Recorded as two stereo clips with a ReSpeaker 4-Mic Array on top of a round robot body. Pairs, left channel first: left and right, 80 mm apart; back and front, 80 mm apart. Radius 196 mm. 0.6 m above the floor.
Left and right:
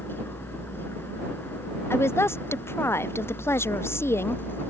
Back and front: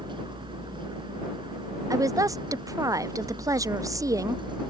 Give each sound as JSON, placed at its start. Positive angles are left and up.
{"t": 0.0, "sound": "a vehicle", "azimuth_deg": 25}
{"t": 1.9, "sound": "a woman speaking", "azimuth_deg": 35}